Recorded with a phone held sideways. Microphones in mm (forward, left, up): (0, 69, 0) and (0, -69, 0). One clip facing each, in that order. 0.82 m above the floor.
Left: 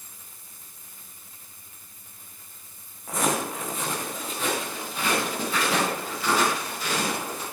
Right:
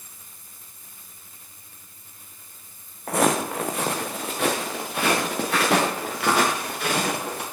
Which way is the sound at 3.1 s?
65° right (ahead or behind).